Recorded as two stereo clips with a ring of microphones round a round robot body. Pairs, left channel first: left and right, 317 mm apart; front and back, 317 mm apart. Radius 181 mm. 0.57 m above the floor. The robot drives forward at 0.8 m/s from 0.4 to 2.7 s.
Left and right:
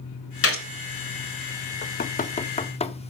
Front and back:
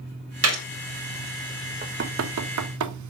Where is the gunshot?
135° left, 2.5 m; by 0.6 s 140° left, 2.5 m.